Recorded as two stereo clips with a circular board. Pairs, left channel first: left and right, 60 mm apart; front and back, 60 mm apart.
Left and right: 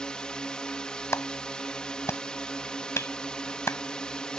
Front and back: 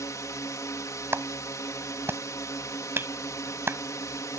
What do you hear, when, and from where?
0.0 s a drone: 15° left
1.1 s a clap: 130° left